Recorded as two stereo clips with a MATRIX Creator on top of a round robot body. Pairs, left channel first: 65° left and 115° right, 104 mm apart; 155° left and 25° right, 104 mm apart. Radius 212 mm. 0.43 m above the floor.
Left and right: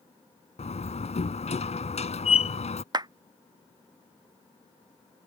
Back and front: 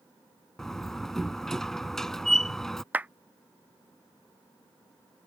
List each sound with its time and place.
0.6 s a door slam: 70° left
2.9 s a clap: 90° right